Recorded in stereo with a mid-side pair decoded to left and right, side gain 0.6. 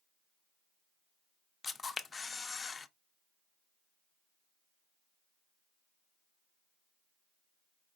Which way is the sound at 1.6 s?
25° left.